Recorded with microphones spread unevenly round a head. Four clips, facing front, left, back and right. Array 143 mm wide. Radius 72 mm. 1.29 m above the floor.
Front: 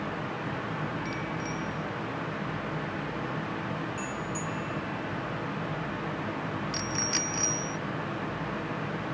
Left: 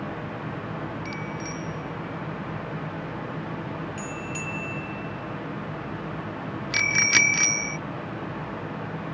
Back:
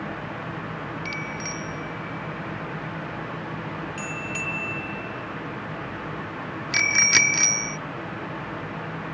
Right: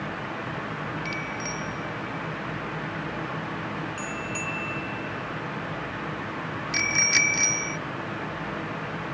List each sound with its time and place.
1.1 s a bicycle bell: 145° right; by 7.8 s 155° left